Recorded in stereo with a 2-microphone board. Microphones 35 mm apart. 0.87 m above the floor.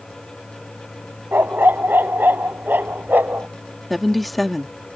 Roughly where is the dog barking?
Right.